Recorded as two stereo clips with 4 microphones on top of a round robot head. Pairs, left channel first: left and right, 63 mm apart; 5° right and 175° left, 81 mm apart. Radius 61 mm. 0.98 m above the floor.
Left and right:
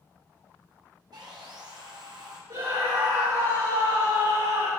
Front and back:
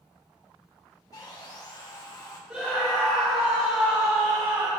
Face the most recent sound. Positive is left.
turn(degrees=-110)